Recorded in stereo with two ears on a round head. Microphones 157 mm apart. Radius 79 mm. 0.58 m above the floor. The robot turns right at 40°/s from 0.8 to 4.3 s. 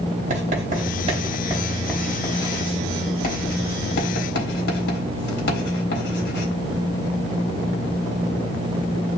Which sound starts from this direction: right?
Writing, at 0.3 s.